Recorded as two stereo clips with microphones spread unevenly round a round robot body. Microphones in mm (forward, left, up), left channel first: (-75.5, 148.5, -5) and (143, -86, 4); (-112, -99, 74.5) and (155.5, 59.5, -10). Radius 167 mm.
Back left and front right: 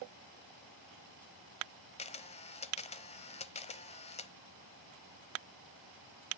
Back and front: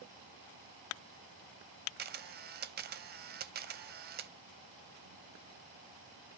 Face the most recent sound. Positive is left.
turn(degrees=70)